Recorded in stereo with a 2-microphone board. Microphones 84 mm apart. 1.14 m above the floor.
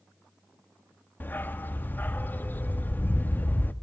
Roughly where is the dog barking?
Left.